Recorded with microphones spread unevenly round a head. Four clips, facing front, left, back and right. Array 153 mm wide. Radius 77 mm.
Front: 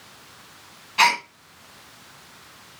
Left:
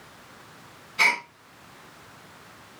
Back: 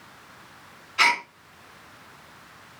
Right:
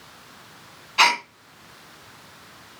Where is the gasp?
55° right, 1.4 m.